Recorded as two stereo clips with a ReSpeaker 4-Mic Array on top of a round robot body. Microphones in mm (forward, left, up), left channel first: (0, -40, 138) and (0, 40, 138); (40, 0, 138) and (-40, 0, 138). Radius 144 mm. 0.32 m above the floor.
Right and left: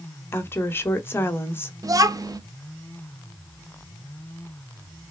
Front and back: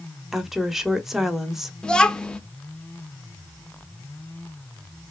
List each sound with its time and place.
0.3 s a woman speaking: 100° right, 0.9 m
1.8 s a child speaking: 75° left, 0.6 m